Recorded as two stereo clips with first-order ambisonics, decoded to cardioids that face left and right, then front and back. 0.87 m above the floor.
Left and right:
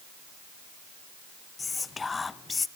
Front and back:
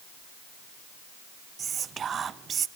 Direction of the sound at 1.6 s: 150° left.